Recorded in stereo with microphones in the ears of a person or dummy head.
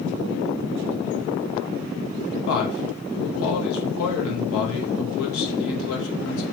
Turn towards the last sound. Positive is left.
turn(degrees=85)